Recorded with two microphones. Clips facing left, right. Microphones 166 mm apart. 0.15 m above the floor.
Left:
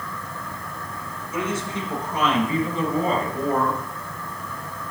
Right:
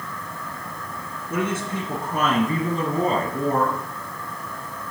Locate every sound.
1.3 s a woman speaking: 60° right (ahead or behind), 2.5 m; by 3.8 s 30° right (ahead or behind), 1.8 m